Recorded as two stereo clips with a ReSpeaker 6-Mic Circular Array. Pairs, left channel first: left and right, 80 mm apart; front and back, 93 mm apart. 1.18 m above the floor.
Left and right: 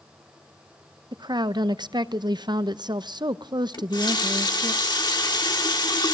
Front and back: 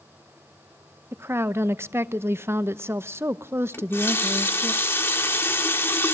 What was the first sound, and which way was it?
A woman speaking, 115° right.